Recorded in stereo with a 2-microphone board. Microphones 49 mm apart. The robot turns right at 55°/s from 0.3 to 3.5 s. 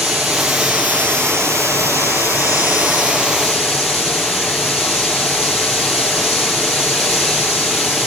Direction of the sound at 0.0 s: Straight behind.